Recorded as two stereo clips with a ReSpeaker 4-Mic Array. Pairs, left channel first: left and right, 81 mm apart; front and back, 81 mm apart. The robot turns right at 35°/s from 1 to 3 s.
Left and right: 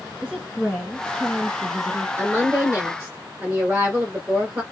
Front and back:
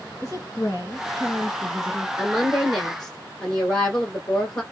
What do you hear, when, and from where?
0.2 s a woman speaking: 5° right, 1.7 m; by 2.1 s 30° left, 1.7 m
2.2 s a woman speaking: 105° right, 1.2 m; by 4.6 s 75° right, 1.2 m